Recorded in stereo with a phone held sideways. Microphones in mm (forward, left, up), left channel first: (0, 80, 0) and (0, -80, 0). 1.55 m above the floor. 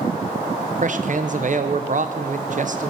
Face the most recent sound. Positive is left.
turn(degrees=-55)  # may be behind; listen again after turning